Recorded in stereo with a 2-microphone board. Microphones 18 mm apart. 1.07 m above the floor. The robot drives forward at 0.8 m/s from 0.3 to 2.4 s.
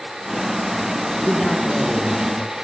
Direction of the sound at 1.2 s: 50° left (ahead or behind).